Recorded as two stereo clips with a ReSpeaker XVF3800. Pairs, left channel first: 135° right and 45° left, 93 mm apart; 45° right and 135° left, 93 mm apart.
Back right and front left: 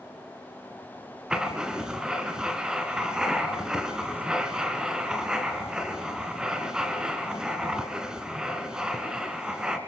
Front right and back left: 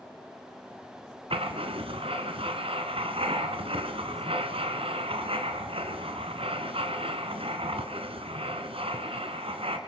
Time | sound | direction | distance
1.3 | writing | 125° left | 2 m